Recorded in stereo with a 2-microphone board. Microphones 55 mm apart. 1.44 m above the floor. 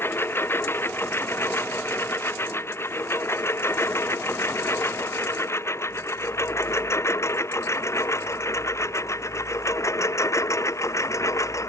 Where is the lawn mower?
45° left (ahead or behind); by 11.7 s 65° left (ahead or behind).